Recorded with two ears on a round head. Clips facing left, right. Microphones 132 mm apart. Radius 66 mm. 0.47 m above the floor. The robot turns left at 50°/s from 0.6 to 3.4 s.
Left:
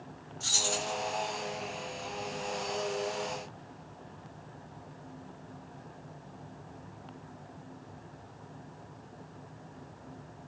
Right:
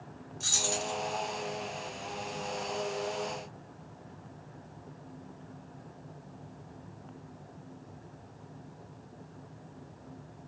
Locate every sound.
0.4 s keys jangling: 65° right (ahead or behind), 1.7 m; by 0.9 s 70° right (ahead or behind), 1.7 m